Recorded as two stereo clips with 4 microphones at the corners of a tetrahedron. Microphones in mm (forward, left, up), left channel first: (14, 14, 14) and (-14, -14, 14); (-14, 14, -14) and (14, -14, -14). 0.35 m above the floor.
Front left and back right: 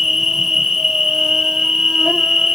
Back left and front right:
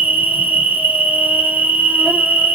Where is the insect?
60° right, 0.7 m.